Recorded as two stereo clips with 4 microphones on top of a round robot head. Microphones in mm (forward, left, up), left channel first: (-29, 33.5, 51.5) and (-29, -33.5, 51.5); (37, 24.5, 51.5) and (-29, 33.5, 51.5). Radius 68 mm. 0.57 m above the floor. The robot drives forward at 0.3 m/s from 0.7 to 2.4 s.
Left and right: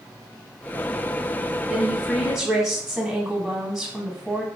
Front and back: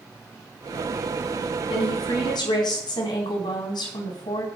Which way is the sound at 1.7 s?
5° right.